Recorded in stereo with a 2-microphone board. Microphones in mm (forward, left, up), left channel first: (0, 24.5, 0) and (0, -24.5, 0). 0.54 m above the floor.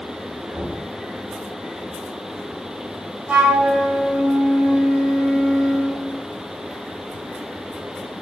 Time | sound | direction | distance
0.5 | knocking | 60° right (ahead or behind) | 1.5 m
3.3 | a flute | 25° right (ahead or behind) | 1.3 m